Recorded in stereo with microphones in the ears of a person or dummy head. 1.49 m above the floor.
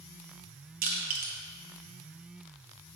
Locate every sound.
0.8 s crushing: 45° right (ahead or behind), 1.3 m